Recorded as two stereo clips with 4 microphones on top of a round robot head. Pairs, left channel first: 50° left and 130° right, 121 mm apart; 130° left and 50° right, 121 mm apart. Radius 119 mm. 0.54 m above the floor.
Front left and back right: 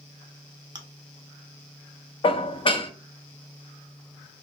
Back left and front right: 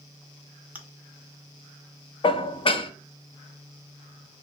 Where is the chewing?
120° right, 0.8 m.